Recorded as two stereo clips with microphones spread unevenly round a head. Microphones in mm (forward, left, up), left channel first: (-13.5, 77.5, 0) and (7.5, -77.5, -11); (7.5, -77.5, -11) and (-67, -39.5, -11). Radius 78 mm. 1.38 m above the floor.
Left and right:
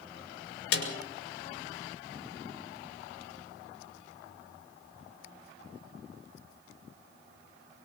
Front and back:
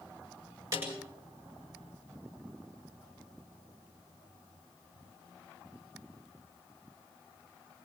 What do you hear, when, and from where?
0.7 s a snare drum: 85° left, 6 m